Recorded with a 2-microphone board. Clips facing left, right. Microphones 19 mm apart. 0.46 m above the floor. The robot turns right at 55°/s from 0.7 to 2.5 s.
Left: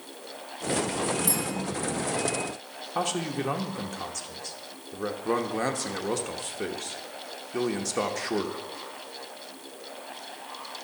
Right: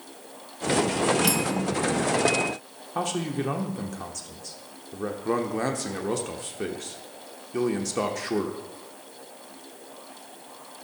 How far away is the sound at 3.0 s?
About 0.9 m.